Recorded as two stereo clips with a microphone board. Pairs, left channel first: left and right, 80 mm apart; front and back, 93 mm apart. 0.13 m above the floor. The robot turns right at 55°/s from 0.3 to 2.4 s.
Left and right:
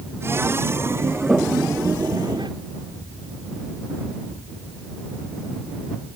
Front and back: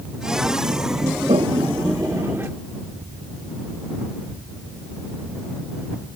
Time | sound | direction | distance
1.3 | a toilet flushing | 175° right | ?